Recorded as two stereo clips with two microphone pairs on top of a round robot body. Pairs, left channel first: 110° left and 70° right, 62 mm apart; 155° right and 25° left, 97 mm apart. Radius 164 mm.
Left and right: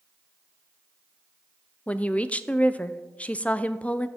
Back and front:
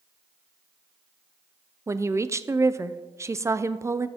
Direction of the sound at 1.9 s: 60° left.